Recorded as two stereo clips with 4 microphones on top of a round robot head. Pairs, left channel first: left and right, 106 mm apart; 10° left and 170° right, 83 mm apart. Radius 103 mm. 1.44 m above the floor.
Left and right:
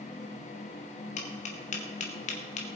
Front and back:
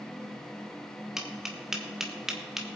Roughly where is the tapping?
Left.